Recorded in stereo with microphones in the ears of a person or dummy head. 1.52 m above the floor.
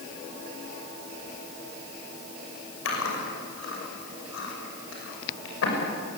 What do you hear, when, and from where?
2.9 s chewing: 75° left (ahead or behind), 6 m